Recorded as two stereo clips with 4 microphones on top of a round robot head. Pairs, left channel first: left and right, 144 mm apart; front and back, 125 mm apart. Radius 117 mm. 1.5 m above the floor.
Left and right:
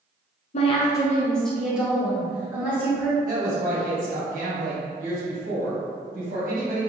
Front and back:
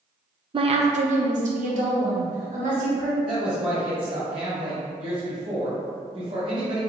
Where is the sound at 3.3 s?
125° right, 1.5 m.